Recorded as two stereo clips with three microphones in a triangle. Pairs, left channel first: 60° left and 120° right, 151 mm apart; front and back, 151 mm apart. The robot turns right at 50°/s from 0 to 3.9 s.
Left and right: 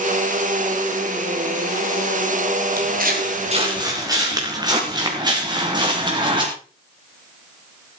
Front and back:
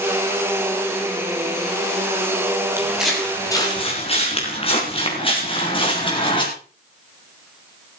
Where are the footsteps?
105° right, 7.5 m; by 6.5 s 60° right, 8.5 m.